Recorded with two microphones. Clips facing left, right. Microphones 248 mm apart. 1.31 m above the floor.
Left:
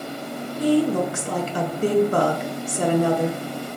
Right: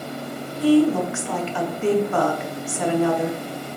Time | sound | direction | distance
0.6 | a woman speaking | 40° left (ahead or behind) | 0.8 m